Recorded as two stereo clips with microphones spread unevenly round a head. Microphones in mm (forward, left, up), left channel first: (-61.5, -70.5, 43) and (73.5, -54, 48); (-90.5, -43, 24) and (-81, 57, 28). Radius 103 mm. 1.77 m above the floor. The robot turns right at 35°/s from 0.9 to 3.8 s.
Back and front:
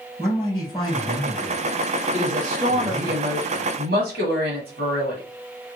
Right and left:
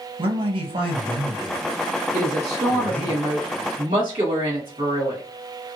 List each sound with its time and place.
0.2 s a man speaking: 115° left, 1.5 m; by 3.1 s 165° right, 1.5 m
2.1 s a woman speaking: 20° right, 1.2 m; by 5.2 s 40° left, 1.2 m